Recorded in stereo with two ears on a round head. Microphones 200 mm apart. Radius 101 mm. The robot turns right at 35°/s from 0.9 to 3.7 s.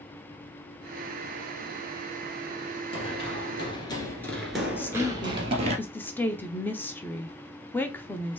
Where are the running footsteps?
25° left (ahead or behind), 1.6 m; by 5.8 s 30° right (ahead or behind), 1.5 m.